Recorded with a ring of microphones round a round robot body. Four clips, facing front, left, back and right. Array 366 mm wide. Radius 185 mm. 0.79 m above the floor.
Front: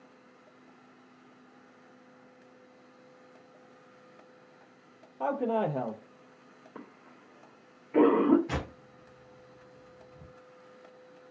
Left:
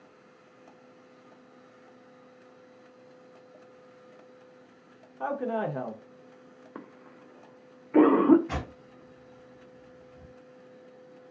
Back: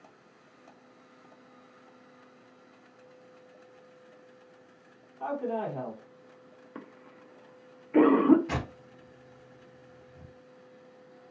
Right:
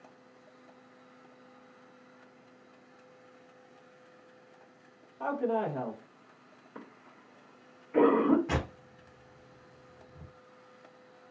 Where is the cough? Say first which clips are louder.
Left 3 dB, back 2 dB; 105° left, 0.5 m.